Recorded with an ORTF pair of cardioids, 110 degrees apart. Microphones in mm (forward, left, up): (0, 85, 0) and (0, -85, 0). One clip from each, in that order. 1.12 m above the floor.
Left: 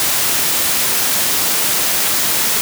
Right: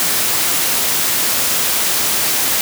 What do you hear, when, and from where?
Only background noise.